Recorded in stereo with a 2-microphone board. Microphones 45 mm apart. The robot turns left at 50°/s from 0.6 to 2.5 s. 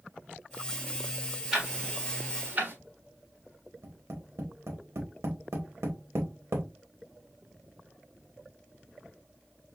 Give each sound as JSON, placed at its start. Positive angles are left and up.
{"t": 1.5, "sound": "ticking", "side_deg": -5, "distance_m": 1.4}
{"t": 3.8, "sound": "tapping", "side_deg": -70, "distance_m": 1.6}